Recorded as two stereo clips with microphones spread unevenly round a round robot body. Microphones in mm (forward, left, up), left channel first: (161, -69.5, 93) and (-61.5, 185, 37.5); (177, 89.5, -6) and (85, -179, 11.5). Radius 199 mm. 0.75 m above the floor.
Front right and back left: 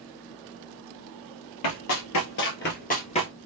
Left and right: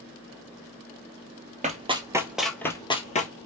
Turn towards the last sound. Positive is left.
turn(degrees=15)